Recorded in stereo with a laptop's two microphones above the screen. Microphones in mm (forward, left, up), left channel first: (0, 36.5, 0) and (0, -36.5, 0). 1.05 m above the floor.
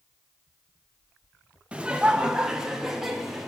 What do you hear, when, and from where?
1.7 s laughter: 15° right (ahead or behind), 1.2 m; by 3.5 s 5° right (ahead or behind), 2.5 m